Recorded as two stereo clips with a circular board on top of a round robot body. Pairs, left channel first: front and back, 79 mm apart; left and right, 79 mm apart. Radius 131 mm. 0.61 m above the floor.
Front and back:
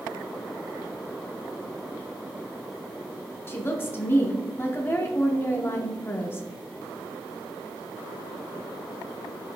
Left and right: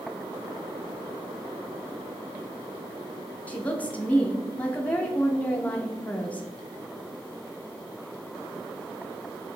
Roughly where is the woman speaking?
Ahead left.